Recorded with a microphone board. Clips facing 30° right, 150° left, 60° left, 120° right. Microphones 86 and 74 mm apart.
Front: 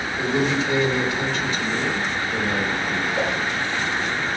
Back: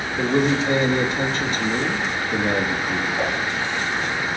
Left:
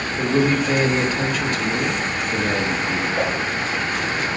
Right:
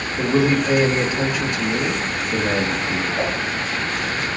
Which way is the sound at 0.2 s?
170° left.